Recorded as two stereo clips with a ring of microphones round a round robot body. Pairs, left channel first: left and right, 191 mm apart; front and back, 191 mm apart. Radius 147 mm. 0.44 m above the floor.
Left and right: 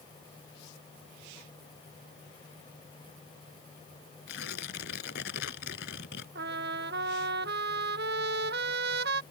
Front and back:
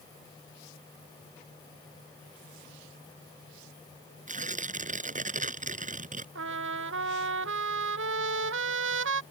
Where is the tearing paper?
135° left.